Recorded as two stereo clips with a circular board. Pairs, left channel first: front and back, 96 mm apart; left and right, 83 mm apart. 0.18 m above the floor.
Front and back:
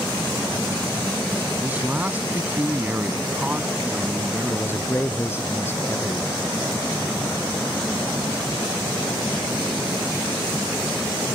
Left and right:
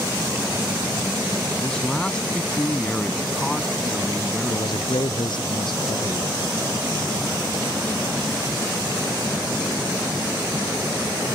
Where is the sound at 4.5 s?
65° left.